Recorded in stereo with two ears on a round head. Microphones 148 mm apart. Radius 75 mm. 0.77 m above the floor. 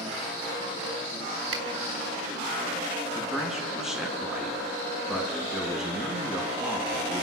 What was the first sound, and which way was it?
A finger snap, 85° right.